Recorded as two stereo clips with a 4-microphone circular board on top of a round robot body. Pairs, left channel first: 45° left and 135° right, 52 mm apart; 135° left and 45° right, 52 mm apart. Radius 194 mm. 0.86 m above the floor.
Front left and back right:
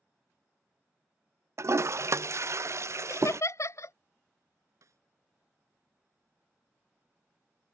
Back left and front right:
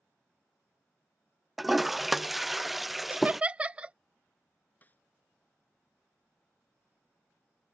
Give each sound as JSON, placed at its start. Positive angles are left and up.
{"t": 1.6, "sound": "a toilet flushing", "azimuth_deg": -130}
{"t": 3.1, "sound": "laughter", "azimuth_deg": 25}
{"t": 4.8, "sound": "a snare drum", "azimuth_deg": -165}